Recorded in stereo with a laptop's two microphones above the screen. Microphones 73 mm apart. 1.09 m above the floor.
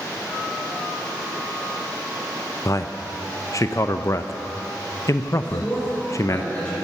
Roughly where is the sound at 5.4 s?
Centre.